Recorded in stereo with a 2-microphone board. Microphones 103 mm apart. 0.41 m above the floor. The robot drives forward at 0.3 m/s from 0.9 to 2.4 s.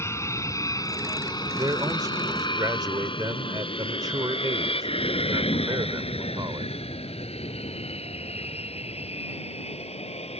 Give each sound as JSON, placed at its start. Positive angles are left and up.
{"t": 0.0, "sound": "an aircraft", "side_deg": 30}
{"t": 1.6, "sound": "a man speaking", "side_deg": -40}